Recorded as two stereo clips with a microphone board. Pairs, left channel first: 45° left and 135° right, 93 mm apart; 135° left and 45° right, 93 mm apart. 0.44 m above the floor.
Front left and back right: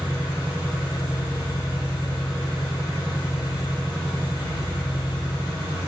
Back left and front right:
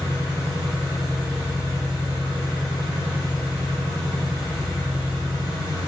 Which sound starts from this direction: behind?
An engine running, at 0.0 s.